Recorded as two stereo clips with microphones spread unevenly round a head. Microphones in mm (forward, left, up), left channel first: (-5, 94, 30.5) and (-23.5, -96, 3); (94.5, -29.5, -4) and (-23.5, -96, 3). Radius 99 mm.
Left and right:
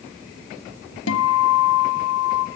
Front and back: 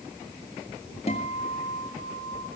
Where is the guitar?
90° left, 1.7 m.